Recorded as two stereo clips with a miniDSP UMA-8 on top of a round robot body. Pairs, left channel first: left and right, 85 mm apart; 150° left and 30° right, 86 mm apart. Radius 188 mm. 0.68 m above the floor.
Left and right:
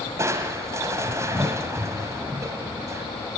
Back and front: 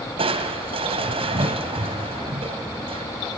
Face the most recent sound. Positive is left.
turn(degrees=-30)